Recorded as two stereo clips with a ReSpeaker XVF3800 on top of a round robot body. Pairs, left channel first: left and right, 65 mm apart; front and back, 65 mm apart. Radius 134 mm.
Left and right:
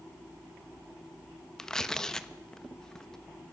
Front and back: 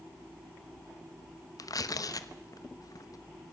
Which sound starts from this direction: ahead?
Tearing paper, at 1.6 s.